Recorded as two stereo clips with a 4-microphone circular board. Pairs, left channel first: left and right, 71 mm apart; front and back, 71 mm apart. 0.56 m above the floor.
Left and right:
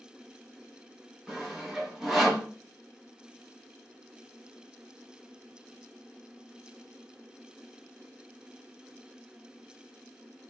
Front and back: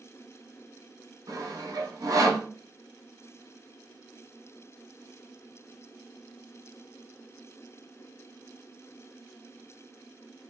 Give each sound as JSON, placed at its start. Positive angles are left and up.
{"t": 1.3, "sound": "sawing", "azimuth_deg": -175, "distance_m": 1.3}